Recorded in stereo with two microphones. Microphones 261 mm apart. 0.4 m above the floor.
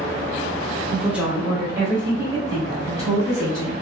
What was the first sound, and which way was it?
A woman speaking, centre (ahead or behind).